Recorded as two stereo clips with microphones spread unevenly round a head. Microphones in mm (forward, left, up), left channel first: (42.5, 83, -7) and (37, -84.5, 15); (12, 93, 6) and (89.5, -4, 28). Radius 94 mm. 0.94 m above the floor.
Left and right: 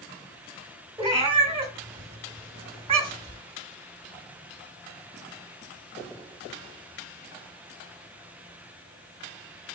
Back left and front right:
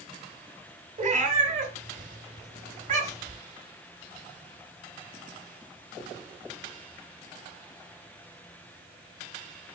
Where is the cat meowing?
35° right, 1.4 m.